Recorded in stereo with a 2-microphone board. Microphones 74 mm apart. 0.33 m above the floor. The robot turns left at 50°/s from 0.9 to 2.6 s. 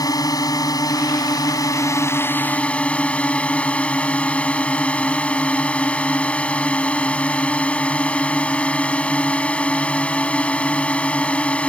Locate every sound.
0.0 s a drone: 105° left; by 11.7 s 20° left